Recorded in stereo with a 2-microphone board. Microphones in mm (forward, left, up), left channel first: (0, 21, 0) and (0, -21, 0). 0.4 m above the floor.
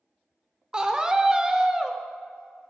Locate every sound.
0.7 s a scream: 20° right (ahead or behind), 0.8 m